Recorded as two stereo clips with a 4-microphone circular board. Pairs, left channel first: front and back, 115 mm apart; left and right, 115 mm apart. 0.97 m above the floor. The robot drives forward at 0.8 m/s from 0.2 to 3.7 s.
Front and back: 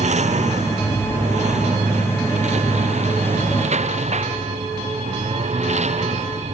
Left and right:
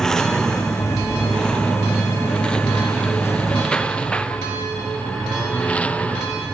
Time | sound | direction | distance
0.0 | a lawn mower | 175° left | ?